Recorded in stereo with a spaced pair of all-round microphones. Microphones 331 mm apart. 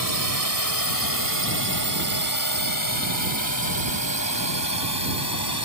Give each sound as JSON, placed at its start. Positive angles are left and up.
{"t": 0.0, "sound": "a drone", "side_deg": 85}